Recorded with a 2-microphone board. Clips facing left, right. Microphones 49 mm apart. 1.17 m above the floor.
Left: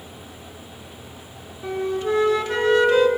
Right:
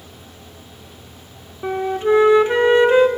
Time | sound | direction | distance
1.6 | a flute | 30° right (ahead or behind) | 0.7 m